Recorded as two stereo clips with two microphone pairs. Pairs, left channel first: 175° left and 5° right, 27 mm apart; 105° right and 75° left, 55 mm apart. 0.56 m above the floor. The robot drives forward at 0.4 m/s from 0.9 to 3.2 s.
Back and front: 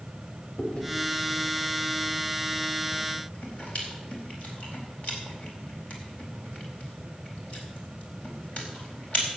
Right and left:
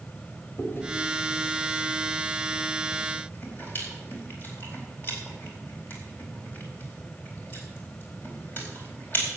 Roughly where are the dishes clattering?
I don't hear dishes clattering.